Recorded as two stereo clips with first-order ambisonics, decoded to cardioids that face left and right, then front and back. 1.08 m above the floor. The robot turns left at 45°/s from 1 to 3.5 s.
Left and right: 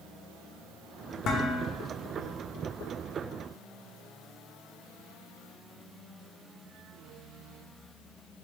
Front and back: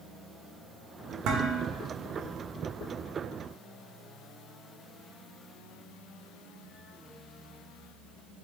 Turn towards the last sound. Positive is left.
turn(degrees=40)